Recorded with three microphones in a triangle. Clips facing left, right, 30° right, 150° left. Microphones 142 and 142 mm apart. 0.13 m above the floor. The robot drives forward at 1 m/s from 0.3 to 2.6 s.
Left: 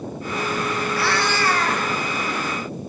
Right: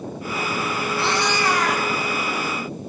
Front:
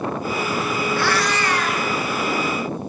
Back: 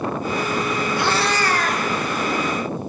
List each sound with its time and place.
1.0 s a cat meowing: 140° right, 0.5 m; by 1.9 s 170° right, 1.3 m